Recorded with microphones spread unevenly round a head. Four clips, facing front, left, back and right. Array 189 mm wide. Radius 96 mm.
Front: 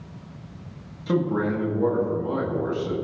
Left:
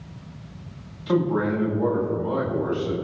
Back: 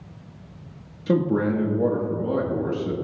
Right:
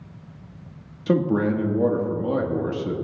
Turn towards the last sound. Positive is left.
turn(degrees=-125)